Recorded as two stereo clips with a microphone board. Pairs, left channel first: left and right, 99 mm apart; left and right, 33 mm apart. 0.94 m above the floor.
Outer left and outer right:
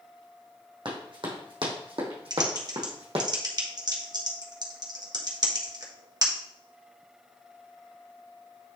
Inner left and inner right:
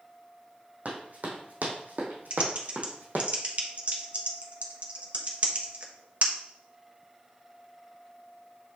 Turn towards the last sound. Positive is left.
turn(degrees=-45)  # may be behind; listen again after turning